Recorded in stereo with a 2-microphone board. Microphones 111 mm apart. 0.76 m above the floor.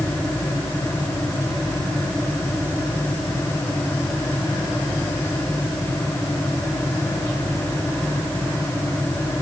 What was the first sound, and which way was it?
Only background noise.